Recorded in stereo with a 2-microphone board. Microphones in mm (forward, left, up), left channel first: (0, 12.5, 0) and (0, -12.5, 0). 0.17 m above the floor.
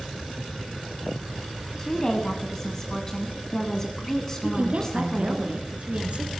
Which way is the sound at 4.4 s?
50° right (ahead or behind).